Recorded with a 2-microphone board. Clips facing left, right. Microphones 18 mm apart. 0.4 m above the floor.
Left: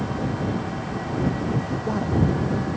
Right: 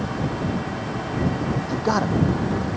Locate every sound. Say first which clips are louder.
1.7 s a man speaking: right 3 dB; 80° right